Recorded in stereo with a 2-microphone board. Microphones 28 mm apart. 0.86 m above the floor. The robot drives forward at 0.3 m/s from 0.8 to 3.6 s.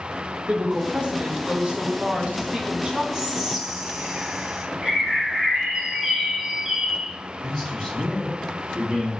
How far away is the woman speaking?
About 0.7 m.